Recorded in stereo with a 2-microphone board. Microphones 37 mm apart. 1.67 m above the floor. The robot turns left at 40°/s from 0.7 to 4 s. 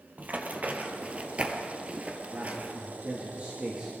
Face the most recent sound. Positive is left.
turn(degrees=-155)